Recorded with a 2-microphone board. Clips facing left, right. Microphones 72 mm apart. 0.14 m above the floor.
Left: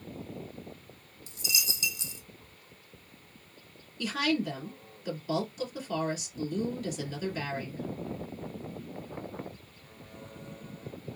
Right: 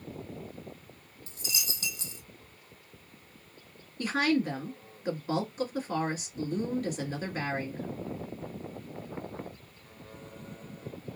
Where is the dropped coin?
45° right (ahead or behind), 1.3 m.